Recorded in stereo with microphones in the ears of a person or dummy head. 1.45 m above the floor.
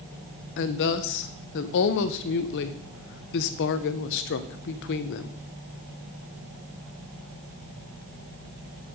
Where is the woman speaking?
55° left (ahead or behind), 0.6 m.